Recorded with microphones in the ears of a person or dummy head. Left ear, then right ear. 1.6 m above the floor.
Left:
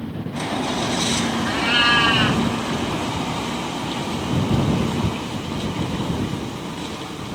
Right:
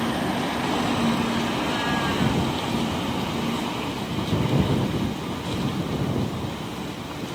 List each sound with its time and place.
1.5 s a cat meowing: 50° left (ahead or behind)